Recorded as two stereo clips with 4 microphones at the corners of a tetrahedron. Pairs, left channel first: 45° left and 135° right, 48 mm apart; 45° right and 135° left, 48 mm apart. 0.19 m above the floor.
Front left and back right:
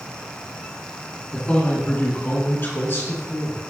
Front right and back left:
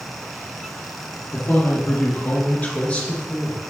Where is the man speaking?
15° right, 2.5 m; by 3.6 s 25° left, 3 m.